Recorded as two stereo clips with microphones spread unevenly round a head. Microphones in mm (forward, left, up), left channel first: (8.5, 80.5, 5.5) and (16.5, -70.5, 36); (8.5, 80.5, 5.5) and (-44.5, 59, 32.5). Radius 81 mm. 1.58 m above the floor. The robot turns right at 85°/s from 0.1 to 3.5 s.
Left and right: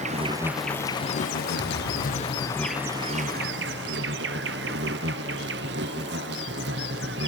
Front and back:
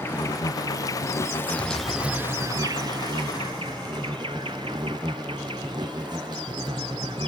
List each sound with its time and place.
0.0 s an insect: 40° right; by 7.3 s 110° right
1.6 s a thud: 130° right; by 2.8 s 20° right